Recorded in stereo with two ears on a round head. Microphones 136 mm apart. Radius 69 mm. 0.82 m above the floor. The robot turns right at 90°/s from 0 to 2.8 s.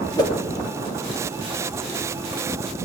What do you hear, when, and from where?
0.2 s a whoosh: 25° left (ahead or behind), 1.6 m; by 0.3 s 40° left (ahead or behind), 1.6 m